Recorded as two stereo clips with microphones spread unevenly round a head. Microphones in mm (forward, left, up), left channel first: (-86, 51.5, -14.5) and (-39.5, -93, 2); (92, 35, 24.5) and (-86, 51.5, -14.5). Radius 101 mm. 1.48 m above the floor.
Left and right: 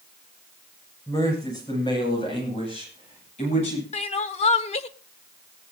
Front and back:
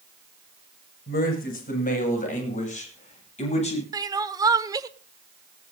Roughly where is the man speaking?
Ahead left.